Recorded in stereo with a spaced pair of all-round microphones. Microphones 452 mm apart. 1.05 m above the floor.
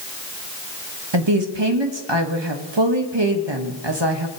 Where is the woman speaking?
65° right (ahead or behind), 1.1 m.